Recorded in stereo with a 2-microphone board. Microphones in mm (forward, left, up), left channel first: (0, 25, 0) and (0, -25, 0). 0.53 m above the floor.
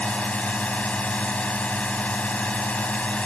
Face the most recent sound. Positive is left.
turn(degrees=30)  # may be behind; listen again after turning